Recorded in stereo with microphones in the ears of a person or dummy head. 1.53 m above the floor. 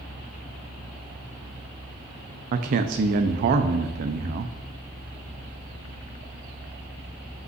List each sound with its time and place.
2.5 s a man speaking: 45° right (ahead or behind), 0.5 m